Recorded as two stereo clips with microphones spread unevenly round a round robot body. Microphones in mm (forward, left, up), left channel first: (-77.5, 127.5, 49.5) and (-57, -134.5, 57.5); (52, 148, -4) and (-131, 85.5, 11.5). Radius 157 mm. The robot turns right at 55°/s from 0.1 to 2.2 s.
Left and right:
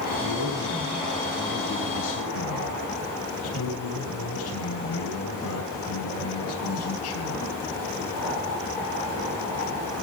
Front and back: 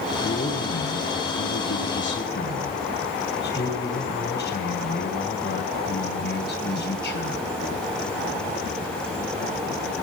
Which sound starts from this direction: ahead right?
A man speaking, at 0.2 s.